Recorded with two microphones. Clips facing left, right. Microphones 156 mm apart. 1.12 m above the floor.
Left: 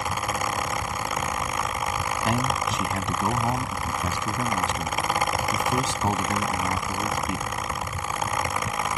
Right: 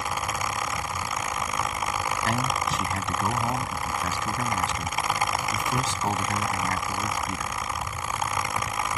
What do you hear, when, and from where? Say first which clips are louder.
2.2 s a man speaking: left 3 dB; 15° left (ahead or behind)